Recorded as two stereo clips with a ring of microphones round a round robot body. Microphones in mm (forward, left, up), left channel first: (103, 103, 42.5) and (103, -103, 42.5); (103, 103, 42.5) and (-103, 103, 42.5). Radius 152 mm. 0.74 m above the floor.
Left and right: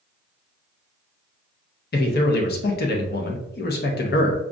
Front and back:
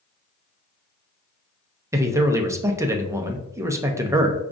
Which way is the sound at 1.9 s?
105° left.